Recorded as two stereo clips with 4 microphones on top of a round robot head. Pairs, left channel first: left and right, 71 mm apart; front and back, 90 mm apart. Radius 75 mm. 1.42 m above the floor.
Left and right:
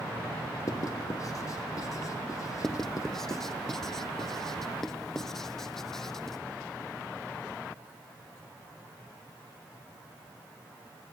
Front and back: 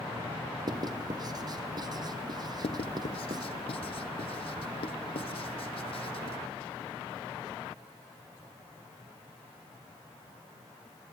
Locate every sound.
0.7 s writing: 140° left, 1.3 m
2.6 s writing: 5° left, 1.1 m